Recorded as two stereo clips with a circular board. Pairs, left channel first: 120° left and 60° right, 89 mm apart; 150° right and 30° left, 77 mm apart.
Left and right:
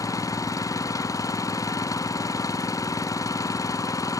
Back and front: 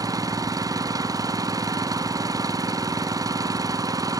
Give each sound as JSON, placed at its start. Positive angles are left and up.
{"t": 0.0, "sound": "an engine running", "azimuth_deg": 70}